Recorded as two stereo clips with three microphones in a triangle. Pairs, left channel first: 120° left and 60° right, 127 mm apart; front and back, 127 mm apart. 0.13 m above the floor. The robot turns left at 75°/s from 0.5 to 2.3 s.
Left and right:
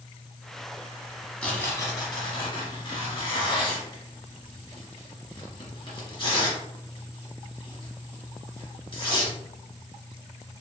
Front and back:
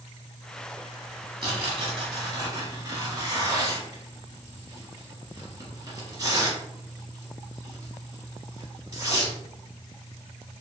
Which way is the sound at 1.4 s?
160° right.